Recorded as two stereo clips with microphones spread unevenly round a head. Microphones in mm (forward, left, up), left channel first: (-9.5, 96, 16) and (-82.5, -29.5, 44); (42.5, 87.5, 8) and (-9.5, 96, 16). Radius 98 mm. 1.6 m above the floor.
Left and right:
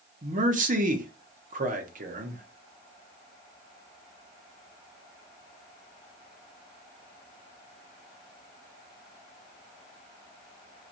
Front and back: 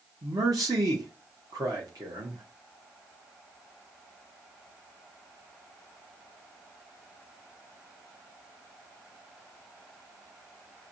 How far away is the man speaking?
About 1.4 m.